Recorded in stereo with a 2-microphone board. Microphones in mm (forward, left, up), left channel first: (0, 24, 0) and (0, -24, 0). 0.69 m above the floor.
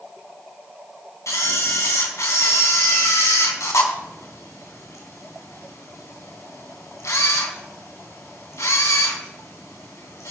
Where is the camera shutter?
85° left, 2.5 m.